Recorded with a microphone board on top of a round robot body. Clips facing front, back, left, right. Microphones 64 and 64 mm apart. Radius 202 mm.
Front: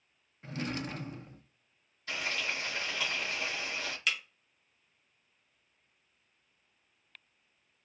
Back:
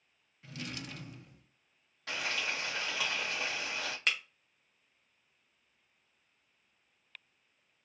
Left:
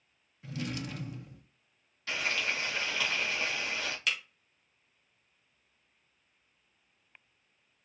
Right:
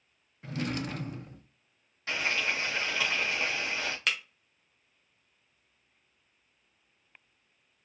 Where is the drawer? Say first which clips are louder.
Front 7 dB, right 4 dB; 50° right, 0.5 m.